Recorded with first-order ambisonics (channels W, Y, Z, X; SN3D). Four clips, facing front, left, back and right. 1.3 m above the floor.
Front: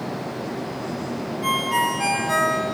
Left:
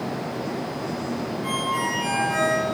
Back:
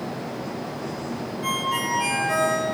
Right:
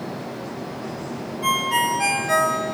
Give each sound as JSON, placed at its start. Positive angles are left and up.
{"t": 1.4, "sound": "a ringtone", "azimuth_deg": -75, "distance_m": 0.9}